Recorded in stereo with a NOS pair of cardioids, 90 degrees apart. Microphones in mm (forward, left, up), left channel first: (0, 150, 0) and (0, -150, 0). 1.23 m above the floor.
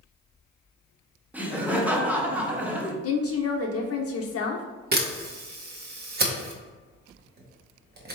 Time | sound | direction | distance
1.3 | laughter | 5° right | 1.0 m
3.0 | a woman speaking | 50° left | 0.7 m
4.9 | a camera shutter | 35° right | 1.0 m